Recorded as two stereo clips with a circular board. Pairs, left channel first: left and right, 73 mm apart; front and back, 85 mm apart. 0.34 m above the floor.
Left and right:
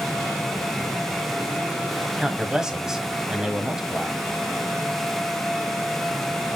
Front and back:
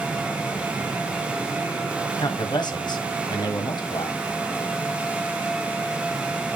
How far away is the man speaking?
About 1.7 m.